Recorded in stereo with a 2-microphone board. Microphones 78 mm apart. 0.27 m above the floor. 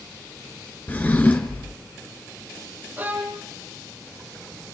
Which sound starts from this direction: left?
A drawer, at 0.9 s.